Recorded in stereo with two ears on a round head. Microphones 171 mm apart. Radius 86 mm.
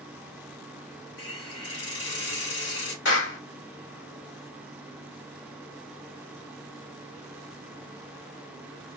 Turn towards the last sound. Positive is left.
turn(degrees=65)  # may be behind; listen again after turning